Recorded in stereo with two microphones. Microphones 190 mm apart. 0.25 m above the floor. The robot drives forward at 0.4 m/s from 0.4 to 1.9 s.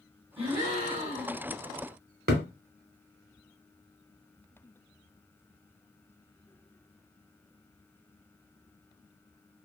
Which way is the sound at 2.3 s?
55° right (ahead or behind).